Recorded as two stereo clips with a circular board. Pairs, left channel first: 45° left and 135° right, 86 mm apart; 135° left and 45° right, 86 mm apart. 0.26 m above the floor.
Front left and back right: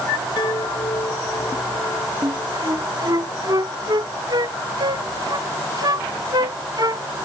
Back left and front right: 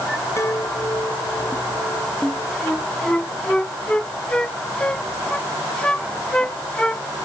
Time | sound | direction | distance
0.4 | a chime | 80° left | ?
2.2 | a flute | 150° right | ?